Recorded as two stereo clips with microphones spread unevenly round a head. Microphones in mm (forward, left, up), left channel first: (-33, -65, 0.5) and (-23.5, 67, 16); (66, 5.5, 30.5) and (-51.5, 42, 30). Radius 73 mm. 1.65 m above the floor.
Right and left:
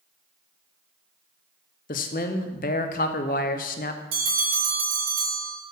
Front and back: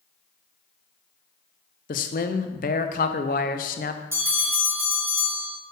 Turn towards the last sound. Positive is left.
turn(degrees=95)